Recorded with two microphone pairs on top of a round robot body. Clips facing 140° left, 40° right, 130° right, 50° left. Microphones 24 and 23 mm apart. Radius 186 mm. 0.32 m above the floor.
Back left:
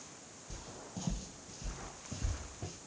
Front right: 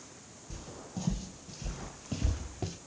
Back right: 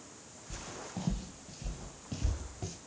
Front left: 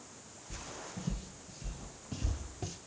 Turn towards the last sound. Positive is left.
turn(degrees=-25)